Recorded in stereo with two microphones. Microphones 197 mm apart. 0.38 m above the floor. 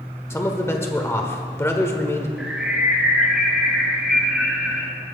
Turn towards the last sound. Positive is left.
turn(degrees=0)  # may be behind; listen again after turning